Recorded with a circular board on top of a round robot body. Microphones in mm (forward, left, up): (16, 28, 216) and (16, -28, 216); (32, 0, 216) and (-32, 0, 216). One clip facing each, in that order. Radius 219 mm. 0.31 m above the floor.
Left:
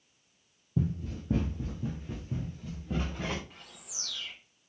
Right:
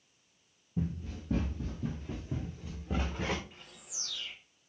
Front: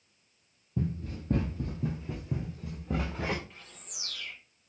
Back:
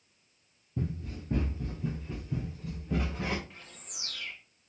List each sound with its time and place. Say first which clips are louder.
0.8 s running footsteps: left 4 dB, front 2 dB; 70° left, 0.6 m; by 3.4 s 15° right, 1.7 m
3.5 s a bird: left 2 dB, back 1 dB; 100° left, 1.3 m